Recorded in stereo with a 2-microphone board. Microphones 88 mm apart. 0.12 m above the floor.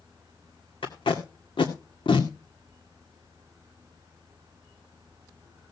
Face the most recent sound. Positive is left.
turn(degrees=65)  # may be behind; listen again after turning